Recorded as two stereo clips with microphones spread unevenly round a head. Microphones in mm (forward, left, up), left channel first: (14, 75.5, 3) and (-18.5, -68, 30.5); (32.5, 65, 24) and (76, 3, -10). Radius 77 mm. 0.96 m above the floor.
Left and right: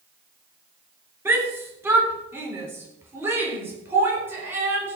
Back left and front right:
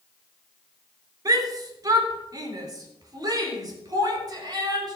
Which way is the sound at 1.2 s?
25° right.